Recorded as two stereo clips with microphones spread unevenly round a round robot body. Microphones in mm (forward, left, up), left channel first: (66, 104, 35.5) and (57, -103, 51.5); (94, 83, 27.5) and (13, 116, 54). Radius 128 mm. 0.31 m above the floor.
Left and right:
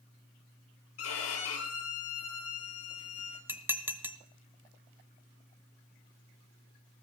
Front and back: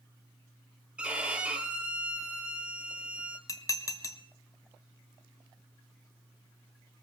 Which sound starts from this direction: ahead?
Dishes clattering, at 3.5 s.